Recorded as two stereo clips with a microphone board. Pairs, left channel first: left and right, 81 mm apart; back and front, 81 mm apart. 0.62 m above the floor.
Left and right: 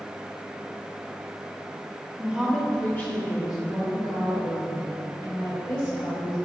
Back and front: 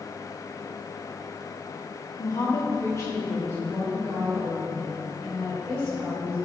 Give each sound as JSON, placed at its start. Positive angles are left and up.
{"t": 2.2, "sound": "a woman speaking", "azimuth_deg": -155, "distance_m": 1.4}